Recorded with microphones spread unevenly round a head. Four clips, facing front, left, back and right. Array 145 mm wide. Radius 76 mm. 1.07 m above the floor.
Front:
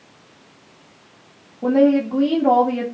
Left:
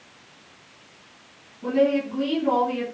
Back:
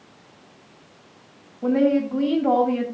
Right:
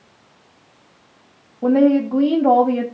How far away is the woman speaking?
About 3 m.